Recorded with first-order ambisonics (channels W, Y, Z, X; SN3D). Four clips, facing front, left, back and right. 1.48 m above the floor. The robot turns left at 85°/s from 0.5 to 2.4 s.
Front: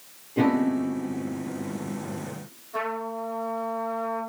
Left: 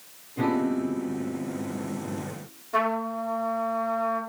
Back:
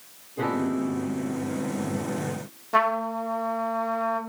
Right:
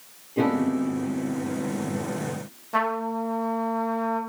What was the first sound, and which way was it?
A piano, 30° right.